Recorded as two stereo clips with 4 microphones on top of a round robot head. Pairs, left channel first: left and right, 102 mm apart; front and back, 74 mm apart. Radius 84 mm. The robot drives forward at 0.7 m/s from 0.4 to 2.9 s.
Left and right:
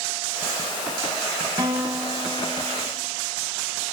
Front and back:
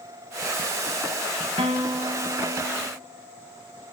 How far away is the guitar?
About 1.0 m.